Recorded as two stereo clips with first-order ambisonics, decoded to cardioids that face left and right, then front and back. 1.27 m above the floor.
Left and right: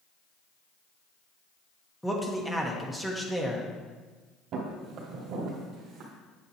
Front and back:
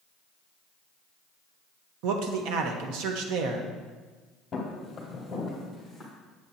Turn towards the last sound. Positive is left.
turn(degrees=-95)